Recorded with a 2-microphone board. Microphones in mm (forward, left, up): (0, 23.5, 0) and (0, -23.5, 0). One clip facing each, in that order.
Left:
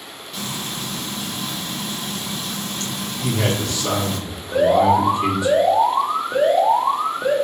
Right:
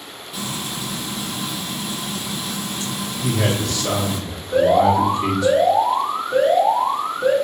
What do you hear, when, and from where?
0.3 s frying: 5° right (ahead or behind), 0.8 m
3.2 s a man speaking: 15° left (ahead or behind), 1.6 m
4.5 s an alarm: 30° left (ahead or behind), 1.2 m